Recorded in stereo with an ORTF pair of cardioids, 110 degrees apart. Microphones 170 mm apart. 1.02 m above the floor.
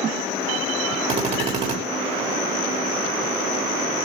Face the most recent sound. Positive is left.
turn(degrees=-40)